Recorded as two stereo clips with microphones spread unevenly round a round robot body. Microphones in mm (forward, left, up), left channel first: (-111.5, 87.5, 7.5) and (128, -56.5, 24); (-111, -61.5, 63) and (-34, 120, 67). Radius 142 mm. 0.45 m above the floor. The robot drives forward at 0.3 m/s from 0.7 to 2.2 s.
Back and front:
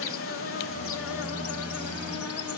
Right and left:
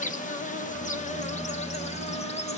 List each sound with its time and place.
0.0 s an insect: 165° right, 0.9 m; by 2.6 s 170° right, 1.3 m